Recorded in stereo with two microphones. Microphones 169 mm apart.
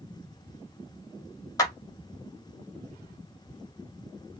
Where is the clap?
20° left (ahead or behind), 1.2 m.